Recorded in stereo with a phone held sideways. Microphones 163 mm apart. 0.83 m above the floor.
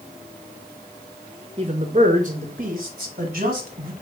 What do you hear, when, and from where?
1.6 s a man speaking: 35° right (ahead or behind), 0.7 m; by 3.9 s 55° right (ahead or behind), 1.7 m